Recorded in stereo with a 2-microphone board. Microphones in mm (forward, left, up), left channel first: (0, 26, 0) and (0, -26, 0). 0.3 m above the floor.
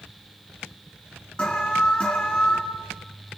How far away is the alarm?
About 4.5 m.